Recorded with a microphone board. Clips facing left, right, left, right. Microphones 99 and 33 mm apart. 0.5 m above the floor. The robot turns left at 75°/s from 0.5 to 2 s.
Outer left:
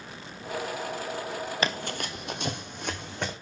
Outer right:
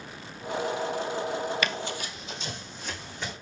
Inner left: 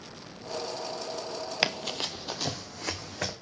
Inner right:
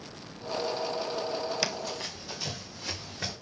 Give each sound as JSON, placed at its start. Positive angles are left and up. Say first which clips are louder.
{"t": 1.6, "sound": "running footsteps", "louder": "outer left 1 dB, inner left 3 dB", "side_deg": 30, "distance_m": 0.6}